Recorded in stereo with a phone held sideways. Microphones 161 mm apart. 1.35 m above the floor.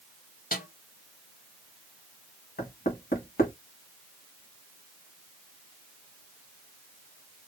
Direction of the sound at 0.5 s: 60° left (ahead or behind).